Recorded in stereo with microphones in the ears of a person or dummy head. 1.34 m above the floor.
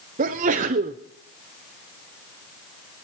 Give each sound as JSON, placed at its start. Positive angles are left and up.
{"t": 0.2, "sound": "a sneeze", "side_deg": -45, "distance_m": 0.7}